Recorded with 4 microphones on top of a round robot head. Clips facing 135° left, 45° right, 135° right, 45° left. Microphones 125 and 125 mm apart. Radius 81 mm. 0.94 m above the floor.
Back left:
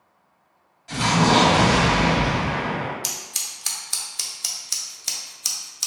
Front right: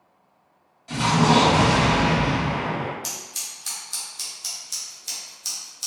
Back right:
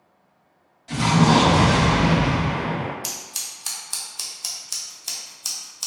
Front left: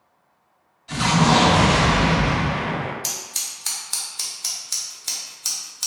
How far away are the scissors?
About 0.7 m.